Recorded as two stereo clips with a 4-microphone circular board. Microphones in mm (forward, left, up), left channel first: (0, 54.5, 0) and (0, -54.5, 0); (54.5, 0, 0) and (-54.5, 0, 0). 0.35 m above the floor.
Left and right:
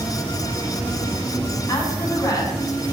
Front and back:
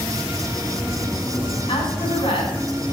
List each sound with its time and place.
1.7 s a woman speaking: 35° left, 3 m